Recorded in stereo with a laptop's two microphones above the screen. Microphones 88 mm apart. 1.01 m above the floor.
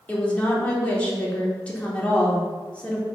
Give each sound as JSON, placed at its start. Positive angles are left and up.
{"t": 0.1, "sound": "a woman speaking", "side_deg": 15, "distance_m": 3.0}